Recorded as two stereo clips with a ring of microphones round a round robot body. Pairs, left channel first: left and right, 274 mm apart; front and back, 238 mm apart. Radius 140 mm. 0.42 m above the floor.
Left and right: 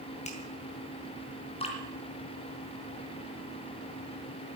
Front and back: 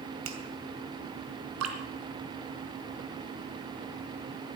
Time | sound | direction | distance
0.2 | a finger snap | 155° left | 2.5 m
1.6 | dripping | 160° left | 2.5 m